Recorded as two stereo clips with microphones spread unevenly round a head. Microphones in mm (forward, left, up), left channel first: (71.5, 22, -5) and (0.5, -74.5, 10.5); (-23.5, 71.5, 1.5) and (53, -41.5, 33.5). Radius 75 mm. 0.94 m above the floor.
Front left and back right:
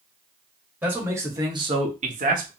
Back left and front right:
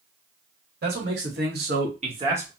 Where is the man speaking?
50° right, 1.7 m; by 2.5 s 140° right, 1.0 m.